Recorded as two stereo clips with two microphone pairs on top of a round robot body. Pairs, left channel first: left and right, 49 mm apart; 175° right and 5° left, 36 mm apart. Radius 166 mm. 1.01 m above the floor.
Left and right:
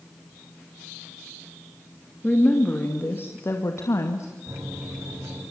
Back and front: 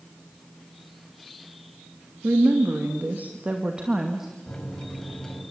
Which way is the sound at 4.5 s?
100° right.